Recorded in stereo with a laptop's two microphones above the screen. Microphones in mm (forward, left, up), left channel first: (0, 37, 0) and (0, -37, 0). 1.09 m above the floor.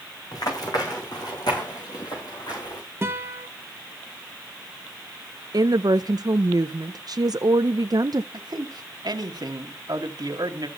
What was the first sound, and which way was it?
Running footsteps, 65° left (ahead or behind).